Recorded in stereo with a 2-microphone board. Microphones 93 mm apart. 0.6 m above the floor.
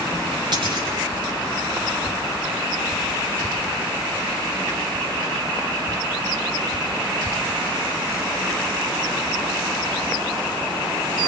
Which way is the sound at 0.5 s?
55° right (ahead or behind).